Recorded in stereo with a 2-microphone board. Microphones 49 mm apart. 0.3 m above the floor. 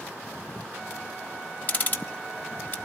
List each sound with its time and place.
1.7 s ticking: 35° left (ahead or behind), 1.3 m